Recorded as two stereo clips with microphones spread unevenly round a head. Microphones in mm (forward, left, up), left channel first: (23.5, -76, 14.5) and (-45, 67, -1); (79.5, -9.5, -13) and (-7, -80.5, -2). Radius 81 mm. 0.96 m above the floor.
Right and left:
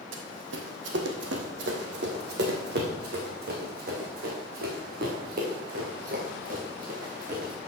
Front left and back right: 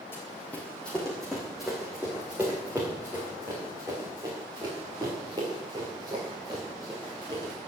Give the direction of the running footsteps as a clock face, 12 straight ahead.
8 o'clock.